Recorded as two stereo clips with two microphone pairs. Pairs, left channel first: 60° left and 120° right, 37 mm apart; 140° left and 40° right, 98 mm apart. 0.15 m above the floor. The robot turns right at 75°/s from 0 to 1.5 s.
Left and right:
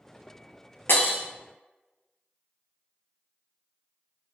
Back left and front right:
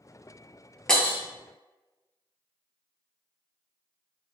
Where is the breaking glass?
55° left, 0.6 m; by 1.2 s 75° left, 0.6 m.